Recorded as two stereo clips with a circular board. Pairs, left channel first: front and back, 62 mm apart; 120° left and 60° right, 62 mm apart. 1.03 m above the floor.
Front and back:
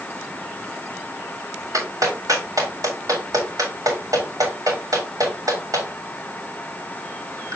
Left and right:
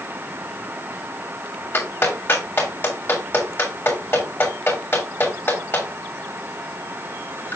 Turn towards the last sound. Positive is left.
turn(degrees=170)